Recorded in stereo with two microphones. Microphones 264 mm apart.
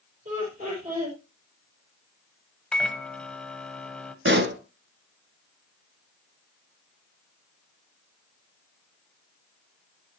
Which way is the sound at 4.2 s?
45° right (ahead or behind).